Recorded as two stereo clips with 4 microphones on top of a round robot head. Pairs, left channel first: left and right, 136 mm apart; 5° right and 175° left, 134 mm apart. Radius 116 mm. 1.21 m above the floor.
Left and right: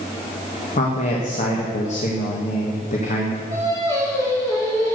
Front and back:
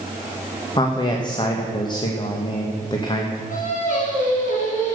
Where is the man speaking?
50° left, 1.6 m.